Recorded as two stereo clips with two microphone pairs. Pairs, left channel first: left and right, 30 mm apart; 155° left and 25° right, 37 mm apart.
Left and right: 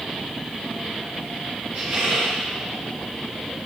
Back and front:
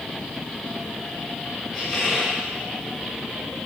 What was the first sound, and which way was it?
A squeak, 130° right.